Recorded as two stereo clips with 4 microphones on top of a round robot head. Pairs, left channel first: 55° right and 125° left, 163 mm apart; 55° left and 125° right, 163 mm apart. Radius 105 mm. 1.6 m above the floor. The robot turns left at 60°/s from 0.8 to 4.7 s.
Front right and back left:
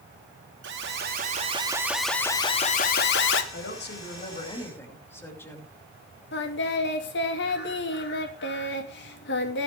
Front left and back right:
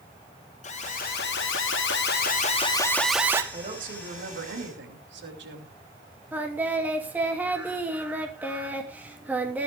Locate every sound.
0.6 s an alarm: 105° left, 2 m; by 3.4 s 50° right, 2 m
3.5 s a woman speaking: 60° right, 6 m; by 5.7 s 135° right, 6 m
6.3 s singing: 40° right, 3 m